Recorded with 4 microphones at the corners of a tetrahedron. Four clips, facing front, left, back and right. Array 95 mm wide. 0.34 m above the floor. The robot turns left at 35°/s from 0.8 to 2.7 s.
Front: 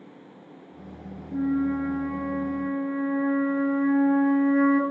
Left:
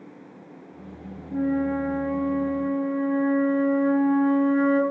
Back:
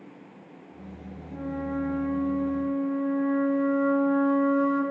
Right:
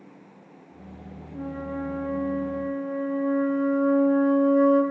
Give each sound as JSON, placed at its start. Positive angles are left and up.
{"t": 1.3, "sound": "a flute", "azimuth_deg": 85, "distance_m": 8.0}